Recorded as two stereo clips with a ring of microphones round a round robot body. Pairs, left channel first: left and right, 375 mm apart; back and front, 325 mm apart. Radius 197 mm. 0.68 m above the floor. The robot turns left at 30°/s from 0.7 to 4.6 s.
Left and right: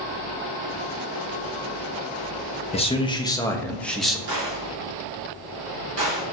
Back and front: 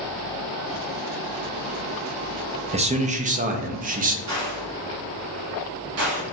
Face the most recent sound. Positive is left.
turn(degrees=-40)